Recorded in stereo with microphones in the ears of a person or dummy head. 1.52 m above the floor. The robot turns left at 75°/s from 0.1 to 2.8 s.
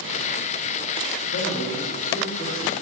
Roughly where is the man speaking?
Behind left.